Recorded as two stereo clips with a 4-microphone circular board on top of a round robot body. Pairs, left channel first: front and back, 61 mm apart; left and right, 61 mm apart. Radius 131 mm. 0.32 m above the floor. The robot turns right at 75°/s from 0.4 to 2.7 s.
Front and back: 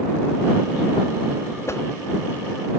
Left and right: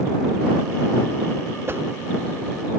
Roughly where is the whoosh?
Ahead right.